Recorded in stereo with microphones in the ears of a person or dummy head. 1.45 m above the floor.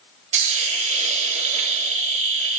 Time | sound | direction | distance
0.3 | a hiss | 40° right (ahead or behind) | 1.1 m